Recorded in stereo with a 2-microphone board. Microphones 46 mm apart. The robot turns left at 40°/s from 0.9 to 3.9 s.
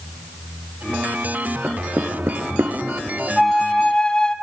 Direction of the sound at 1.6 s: 35° right (ahead or behind).